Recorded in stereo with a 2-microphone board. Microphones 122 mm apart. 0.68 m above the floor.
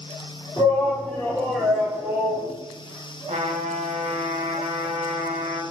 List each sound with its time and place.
0.6 s a shout: 25° left (ahead or behind), 1.5 m; by 2.5 s 15° right (ahead or behind), 1.2 m
3.3 s a trumpet: 85° right, 1.3 m